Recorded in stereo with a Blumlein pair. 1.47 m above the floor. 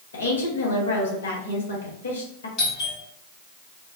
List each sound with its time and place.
0.1 s a woman speaking: 65° left, 1.1 m
2.6 s a doorbell: 25° left, 1.5 m